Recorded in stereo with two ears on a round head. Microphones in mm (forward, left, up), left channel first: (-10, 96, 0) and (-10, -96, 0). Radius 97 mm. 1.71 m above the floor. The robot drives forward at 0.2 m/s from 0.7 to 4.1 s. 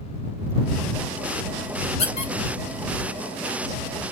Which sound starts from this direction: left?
A squeak, at 2.0 s.